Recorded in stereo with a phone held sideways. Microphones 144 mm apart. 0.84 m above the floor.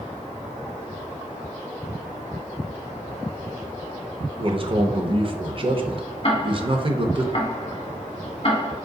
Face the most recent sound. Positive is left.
turn(degrees=40)  # may be behind; listen again after turning